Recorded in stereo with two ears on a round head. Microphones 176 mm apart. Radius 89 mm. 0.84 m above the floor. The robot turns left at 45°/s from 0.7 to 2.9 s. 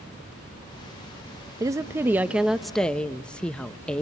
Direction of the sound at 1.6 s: 20° right (ahead or behind).